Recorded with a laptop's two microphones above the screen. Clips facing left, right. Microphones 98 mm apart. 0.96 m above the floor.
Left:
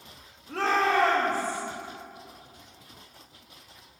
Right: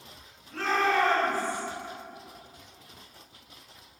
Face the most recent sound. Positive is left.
turn(degrees=65)  # may be behind; listen again after turning